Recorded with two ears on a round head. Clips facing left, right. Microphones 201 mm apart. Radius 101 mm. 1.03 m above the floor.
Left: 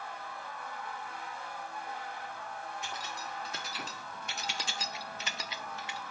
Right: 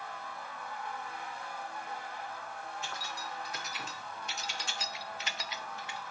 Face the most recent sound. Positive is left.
turn(degrees=55)  # may be behind; listen again after turning